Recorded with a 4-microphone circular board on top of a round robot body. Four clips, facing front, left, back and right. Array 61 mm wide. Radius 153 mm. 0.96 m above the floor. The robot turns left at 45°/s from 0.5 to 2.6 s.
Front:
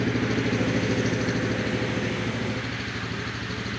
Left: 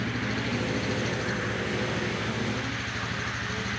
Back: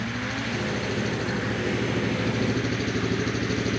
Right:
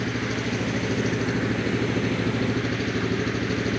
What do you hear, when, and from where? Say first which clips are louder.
0.0 s an engine running: right 3 dB, front 5 dB; 25° right; by 3.8 s 120° right